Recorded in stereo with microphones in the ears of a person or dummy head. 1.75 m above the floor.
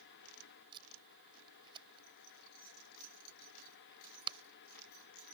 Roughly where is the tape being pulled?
Right.